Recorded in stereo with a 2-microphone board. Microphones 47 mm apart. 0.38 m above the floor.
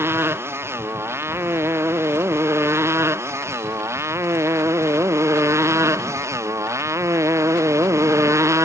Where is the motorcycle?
60° right (ahead or behind); by 8.6 s 85° right.